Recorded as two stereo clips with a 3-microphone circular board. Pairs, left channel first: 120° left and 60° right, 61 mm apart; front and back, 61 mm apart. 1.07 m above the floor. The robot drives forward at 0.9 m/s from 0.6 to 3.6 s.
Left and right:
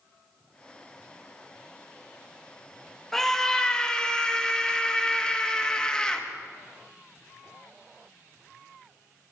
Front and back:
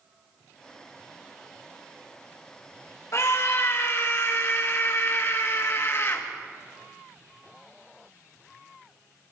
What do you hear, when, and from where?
3.1 s a scream: 35° left, 2 m; by 6.2 s 45° left, 1.7 m